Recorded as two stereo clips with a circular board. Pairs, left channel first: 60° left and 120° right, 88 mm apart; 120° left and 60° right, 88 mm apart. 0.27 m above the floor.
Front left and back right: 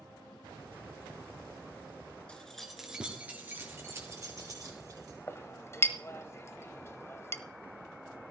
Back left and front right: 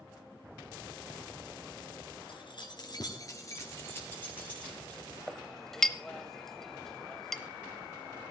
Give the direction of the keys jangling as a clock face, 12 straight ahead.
7 o'clock.